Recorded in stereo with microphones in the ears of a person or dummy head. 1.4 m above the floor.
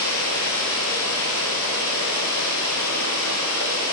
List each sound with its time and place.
0.0 s running water: 80° left, 9 m